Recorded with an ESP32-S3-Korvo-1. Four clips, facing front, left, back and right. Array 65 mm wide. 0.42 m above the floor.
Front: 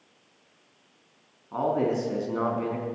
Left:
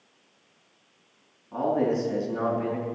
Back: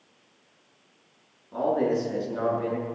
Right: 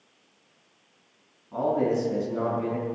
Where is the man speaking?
10° left, 4.5 m.